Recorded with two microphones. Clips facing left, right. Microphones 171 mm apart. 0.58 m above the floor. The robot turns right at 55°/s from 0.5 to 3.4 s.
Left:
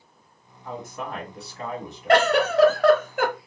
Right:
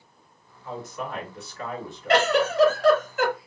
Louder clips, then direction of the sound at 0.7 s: Even; 85° left.